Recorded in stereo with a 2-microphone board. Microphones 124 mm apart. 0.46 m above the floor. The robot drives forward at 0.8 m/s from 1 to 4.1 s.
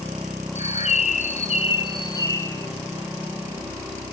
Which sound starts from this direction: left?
A bird, at 0.6 s.